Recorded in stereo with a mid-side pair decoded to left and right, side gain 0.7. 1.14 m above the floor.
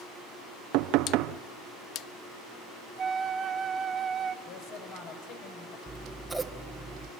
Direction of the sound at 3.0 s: 30° right.